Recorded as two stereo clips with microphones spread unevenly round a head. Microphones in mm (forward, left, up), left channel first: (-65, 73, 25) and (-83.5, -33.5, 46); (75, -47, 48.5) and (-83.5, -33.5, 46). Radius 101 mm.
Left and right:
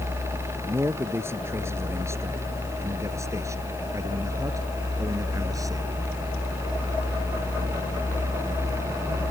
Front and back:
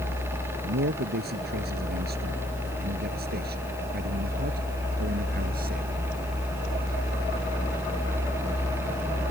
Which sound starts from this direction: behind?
A man speaking, at 0.6 s.